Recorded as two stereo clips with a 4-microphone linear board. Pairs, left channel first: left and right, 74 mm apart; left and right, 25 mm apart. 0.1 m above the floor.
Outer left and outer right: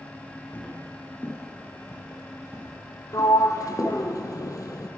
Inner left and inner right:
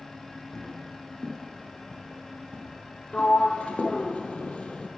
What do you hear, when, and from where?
0.5 s footsteps: 25° left (ahead or behind), 2.5 m; by 4.0 s 45° left (ahead or behind), 4 m
3.1 s a sliding door: 55° left (ahead or behind), 1.0 m